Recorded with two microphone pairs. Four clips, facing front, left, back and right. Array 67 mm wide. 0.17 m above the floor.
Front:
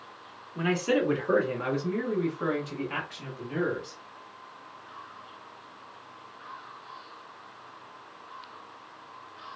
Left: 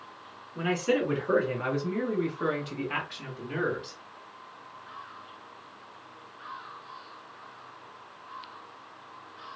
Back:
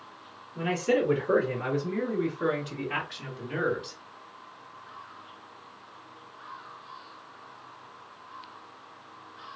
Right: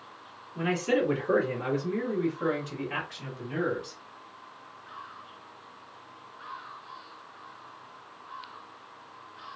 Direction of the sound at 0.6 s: 30° left.